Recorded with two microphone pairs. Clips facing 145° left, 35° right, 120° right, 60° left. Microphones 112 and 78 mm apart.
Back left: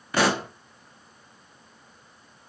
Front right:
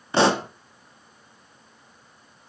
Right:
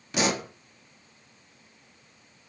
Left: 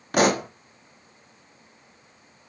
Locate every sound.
0.1 s a pop: 25° left, 1.1 m